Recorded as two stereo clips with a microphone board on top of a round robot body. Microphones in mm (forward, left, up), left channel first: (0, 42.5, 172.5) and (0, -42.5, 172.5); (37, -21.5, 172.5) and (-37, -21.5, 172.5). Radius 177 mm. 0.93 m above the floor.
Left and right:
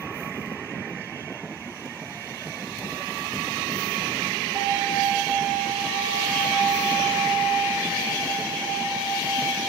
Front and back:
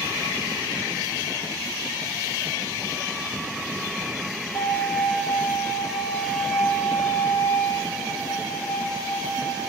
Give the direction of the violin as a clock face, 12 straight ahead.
1 o'clock.